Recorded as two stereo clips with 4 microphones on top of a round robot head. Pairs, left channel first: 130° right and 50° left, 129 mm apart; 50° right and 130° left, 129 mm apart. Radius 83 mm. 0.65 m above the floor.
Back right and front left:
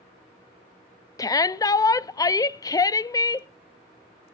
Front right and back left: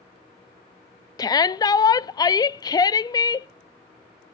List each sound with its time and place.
1.2 s a shout: 85° right, 0.5 m